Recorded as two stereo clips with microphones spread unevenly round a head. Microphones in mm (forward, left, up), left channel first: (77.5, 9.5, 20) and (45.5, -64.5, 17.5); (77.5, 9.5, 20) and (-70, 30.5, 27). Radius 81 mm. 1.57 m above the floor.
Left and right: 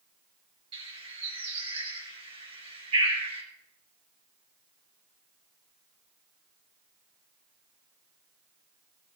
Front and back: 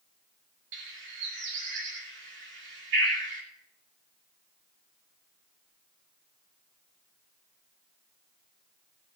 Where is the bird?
170° right, 3.5 m.